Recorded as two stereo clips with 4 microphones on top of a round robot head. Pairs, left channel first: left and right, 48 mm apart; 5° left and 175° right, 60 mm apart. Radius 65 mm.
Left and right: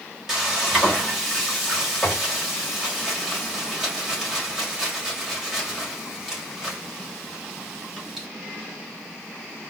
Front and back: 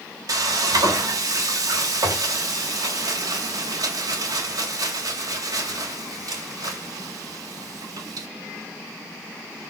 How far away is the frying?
About 3 m.